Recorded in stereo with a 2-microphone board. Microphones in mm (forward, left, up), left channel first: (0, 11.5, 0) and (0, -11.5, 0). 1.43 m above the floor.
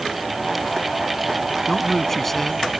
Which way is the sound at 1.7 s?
10° left (ahead or behind).